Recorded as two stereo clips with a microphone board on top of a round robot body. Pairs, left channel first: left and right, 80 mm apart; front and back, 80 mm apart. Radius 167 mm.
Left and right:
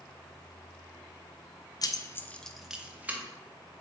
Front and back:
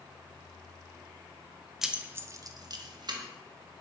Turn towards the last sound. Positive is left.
turn(degrees=-155)